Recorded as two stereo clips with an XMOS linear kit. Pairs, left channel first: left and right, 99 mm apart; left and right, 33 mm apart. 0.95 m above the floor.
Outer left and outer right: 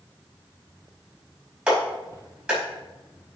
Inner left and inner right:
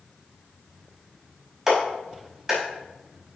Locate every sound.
1.7 s a clap: 10° right (ahead or behind), 4.5 m